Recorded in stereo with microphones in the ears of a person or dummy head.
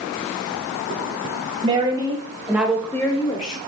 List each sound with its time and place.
1.6 s a woman speaking: 25° right (ahead or behind), 2 m; by 3.6 s 40° left (ahead or behind), 1.0 m